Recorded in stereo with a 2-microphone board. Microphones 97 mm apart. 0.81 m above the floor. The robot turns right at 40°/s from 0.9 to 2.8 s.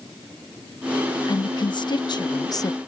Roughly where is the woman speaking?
Left.